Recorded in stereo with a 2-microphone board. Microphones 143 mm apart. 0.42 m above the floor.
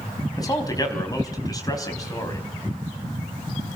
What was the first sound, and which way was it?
A man speaking, 25° left (ahead or behind).